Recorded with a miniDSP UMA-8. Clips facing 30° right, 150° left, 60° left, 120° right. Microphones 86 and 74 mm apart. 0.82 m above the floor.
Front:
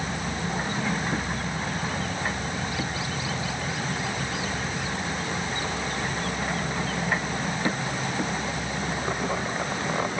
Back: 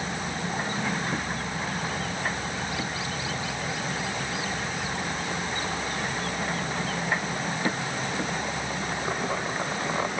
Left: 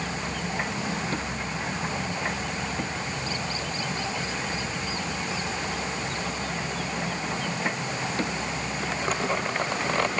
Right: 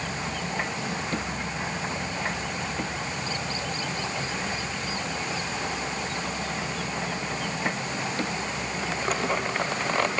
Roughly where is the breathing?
I don't hear breathing.